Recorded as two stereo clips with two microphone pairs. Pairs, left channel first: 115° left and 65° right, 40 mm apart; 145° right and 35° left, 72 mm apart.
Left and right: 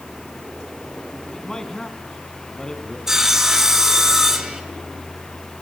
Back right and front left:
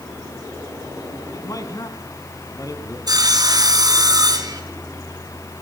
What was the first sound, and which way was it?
A man speaking, 170° right.